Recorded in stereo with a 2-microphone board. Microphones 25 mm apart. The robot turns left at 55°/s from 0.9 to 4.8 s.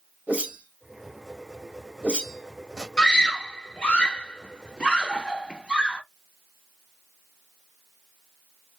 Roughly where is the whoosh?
Right.